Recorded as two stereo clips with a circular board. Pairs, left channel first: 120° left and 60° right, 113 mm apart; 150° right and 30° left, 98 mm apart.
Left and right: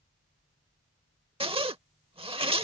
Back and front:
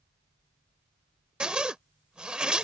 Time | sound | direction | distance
1.4 | a zipper | 50° right | ?